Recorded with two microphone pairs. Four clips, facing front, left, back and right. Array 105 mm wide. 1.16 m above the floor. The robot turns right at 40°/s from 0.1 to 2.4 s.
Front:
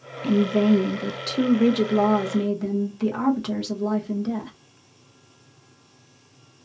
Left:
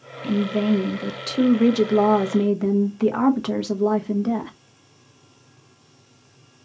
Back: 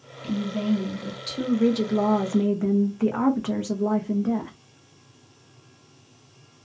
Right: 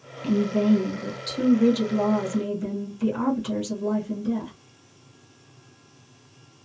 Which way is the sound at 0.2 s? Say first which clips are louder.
Even, front 7 dB; 10° left.